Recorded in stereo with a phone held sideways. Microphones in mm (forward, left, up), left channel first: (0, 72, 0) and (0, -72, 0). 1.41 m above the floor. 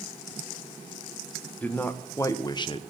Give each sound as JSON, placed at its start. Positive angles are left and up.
{"t": 1.6, "sound": "a man speaking", "side_deg": 10, "distance_m": 1.4}